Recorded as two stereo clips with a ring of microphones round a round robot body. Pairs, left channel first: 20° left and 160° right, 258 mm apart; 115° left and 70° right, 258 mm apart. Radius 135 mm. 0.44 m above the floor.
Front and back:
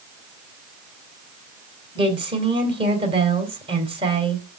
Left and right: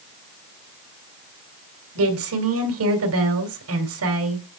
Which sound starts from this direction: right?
A woman speaking, at 1.9 s.